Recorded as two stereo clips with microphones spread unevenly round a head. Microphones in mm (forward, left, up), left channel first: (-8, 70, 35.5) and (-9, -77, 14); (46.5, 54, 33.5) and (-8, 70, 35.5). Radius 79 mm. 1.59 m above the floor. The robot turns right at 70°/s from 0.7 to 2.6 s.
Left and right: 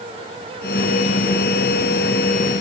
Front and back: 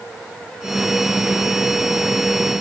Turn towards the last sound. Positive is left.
No sound to turn to.